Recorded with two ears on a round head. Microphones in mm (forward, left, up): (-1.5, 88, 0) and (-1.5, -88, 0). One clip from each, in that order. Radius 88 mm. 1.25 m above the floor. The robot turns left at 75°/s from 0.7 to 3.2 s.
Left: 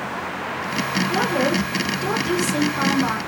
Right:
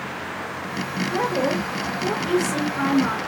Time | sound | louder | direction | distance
1.1 | a woman speaking | even | 125° left | 3 m